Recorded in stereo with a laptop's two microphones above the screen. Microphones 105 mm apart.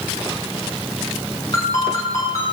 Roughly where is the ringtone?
Left.